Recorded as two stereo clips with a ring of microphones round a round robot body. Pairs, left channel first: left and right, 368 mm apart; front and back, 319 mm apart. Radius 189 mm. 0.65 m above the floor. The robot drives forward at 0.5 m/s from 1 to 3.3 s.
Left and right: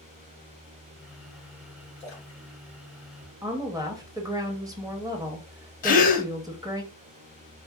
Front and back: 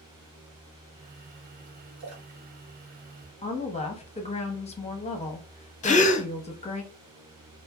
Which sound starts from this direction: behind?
A splash, at 2.0 s.